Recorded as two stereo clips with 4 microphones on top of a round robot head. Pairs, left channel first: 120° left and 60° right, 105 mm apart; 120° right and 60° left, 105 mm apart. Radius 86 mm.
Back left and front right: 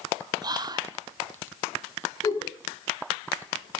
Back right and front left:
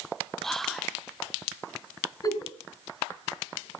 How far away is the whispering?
About 1.3 m.